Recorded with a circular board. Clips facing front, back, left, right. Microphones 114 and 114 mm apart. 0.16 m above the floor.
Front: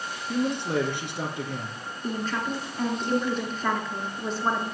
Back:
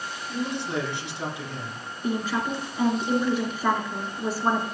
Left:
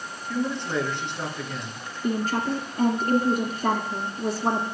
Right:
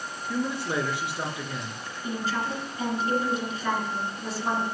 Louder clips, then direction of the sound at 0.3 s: Front 3 dB, left 2 dB; 10° right.